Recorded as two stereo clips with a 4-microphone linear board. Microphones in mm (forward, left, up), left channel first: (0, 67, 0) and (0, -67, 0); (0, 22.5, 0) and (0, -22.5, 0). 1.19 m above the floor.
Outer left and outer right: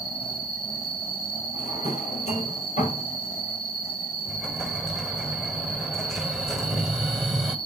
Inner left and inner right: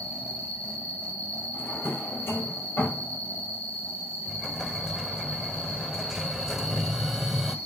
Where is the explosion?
Centre (ahead or behind), 1.3 m.